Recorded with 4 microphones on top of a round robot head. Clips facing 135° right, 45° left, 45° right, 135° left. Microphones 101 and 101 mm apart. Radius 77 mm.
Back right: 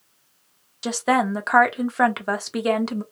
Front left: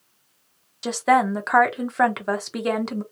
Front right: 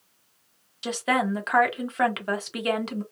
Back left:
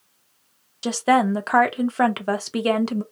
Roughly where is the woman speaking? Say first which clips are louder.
Front left 2 dB, back left 7 dB; behind left.